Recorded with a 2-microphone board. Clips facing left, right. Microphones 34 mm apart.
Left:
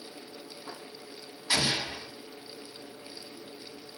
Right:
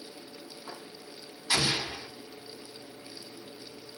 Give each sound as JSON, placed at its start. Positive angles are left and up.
{"t": 1.5, "sound": "an explosion", "side_deg": 15, "distance_m": 1.7}